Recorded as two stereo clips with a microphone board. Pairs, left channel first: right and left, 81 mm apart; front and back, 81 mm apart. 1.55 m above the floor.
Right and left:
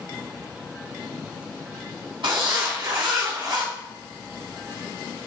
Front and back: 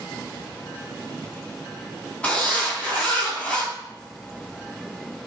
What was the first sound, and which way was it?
A zipper, 75° left.